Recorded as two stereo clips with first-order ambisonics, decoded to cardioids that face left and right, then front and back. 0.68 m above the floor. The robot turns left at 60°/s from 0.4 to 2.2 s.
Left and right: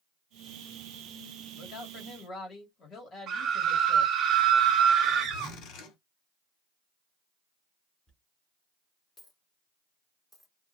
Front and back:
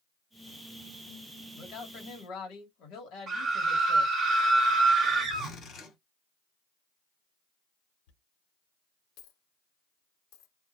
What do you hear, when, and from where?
1.5 s a man speaking: 70° left, 1.7 m; by 4.1 s 30° left, 1.7 m
3.3 s a scream: 135° right, 1.0 m
5.3 s a zipper: 55° left, 1.8 m
8.1 s a dropped coin: 10° left, 1.4 m